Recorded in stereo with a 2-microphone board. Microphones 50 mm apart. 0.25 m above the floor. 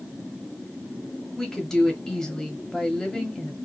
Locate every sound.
1.4 s a woman speaking: 10° left (ahead or behind), 1.0 m